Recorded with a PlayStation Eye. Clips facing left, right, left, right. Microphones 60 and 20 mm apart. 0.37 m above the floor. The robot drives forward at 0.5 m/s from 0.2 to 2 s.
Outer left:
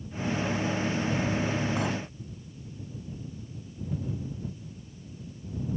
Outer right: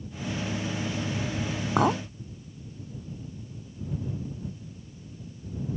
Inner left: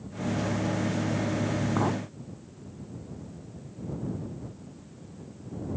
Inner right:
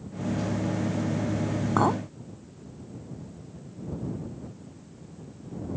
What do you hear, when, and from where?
1.8 s a clink: 55° right (ahead or behind); by 2.0 s 50° right (ahead or behind)